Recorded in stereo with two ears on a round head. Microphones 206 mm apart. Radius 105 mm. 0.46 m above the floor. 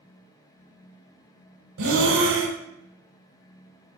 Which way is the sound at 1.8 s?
65° right (ahead or behind).